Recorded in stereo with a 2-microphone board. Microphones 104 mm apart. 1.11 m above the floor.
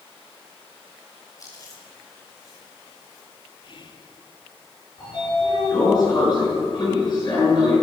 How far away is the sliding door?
About 8.5 m.